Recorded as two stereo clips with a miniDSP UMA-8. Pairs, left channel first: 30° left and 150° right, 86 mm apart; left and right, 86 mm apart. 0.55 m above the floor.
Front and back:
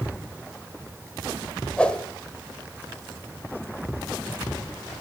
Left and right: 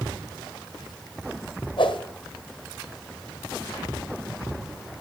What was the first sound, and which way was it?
A whoosh, 110° left.